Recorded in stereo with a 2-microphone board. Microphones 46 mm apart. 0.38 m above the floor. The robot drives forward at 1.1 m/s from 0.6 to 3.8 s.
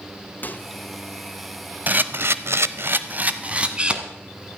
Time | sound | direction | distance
0.4 | a microwave | 45° left (ahead or behind) | 1.1 m
1.9 | a camera shutter | 40° right (ahead or behind) | 1.0 m